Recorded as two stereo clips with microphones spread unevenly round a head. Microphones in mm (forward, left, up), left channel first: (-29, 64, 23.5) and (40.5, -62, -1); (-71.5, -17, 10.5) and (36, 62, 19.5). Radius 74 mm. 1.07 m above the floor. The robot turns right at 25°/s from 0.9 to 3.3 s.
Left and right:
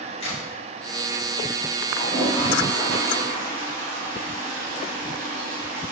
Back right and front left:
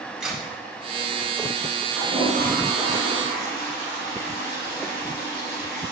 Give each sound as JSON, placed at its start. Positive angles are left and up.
{"t": 0.2, "sound": "a crack", "azimuth_deg": 120, "distance_m": 3.0}
{"t": 1.9, "sound": "a toilet flushing", "azimuth_deg": -175, "distance_m": 3.0}